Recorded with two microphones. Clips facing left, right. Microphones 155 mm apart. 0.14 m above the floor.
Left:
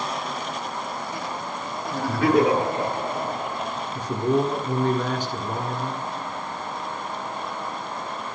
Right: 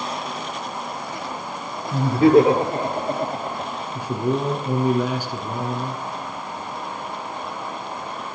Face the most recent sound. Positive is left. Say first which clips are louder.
# left 1 dB
turn(degrees=-10)  # may be behind; listen again after turning